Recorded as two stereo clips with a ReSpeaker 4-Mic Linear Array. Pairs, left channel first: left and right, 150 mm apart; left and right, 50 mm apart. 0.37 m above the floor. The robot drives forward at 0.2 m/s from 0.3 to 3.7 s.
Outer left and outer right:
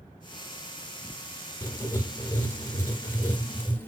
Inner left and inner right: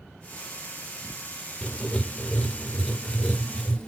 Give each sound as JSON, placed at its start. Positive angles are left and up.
{"t": 1.6, "sound": "writing", "side_deg": 20, "distance_m": 0.6}